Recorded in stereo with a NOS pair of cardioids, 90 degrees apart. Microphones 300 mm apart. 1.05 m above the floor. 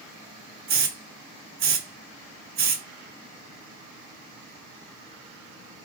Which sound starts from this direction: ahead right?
A hiss, at 0.7 s.